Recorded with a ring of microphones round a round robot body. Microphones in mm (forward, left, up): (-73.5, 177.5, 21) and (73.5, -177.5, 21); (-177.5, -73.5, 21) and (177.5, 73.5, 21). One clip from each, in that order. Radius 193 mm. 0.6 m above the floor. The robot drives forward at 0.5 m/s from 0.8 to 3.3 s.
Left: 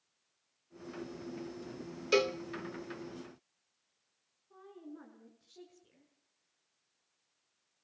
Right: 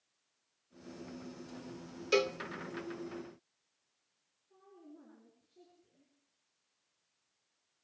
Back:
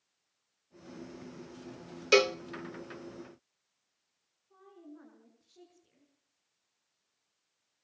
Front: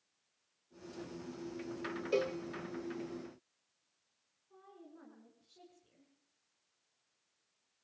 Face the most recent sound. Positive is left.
turn(degrees=125)